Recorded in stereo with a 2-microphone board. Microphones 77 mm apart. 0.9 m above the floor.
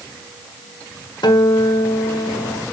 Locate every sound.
1.2 s a guitar: 70° left (ahead or behind), 1.1 m